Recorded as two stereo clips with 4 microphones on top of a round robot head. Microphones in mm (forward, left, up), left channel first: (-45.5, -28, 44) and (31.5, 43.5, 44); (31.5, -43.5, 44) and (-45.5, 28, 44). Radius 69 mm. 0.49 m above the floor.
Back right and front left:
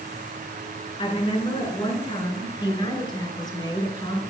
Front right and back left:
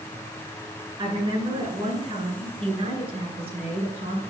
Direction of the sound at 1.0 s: Straight behind.